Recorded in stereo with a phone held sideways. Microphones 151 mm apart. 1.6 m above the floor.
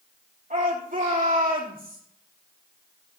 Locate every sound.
0.5 s a shout: 65° right (ahead or behind), 5.5 m; by 2.0 s 75° right (ahead or behind), 4.5 m